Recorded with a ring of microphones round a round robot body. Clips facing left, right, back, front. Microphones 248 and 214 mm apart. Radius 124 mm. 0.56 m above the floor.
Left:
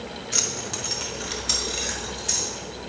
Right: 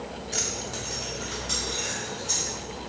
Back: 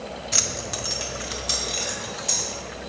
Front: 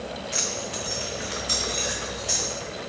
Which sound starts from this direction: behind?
Keys jangling, at 0.3 s.